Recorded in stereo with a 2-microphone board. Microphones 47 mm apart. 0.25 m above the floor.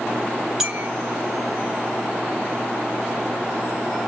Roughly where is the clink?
Centre.